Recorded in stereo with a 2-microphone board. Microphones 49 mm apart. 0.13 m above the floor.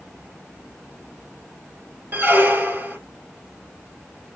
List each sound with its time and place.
2.1 s a squeak: 35° right (ahead or behind), 1.1 m